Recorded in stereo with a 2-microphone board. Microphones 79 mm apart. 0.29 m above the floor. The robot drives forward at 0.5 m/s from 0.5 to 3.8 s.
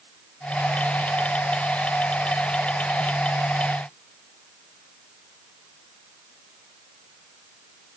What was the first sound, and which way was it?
Only background noise.